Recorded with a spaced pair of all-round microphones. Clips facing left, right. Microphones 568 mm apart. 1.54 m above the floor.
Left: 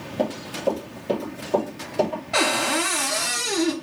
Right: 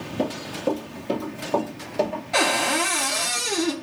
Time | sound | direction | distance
0.2 | running footsteps | 20° left (ahead or behind) | 2.0 m
2.3 | a cupboard door | 5° left (ahead or behind) | 0.6 m